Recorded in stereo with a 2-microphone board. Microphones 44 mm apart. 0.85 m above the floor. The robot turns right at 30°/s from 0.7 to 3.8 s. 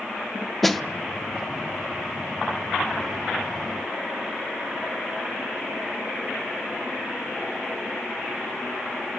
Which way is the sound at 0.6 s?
5° left (ahead or behind).